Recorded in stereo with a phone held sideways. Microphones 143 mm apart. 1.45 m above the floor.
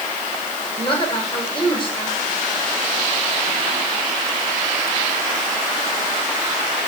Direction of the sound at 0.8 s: 35° left (ahead or behind).